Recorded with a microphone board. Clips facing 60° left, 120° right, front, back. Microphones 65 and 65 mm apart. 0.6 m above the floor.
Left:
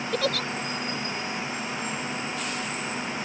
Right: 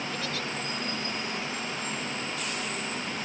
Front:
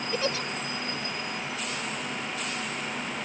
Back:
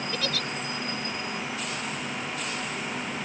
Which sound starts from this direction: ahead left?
A giggle, at 0.1 s.